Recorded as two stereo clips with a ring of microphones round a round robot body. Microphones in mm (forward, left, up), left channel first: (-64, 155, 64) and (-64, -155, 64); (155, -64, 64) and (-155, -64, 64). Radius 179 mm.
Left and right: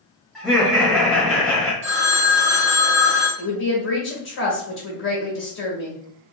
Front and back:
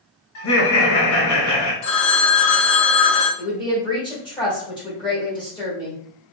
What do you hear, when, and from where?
0.3 s laughter: straight ahead, 1.5 m
1.8 s a phone ringing: 25° right, 1.1 m
3.4 s a woman speaking: 70° left, 1.7 m